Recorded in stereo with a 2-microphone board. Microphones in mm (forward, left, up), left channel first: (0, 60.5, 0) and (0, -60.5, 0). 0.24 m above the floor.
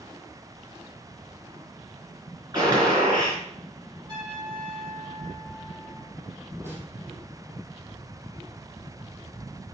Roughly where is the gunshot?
Right.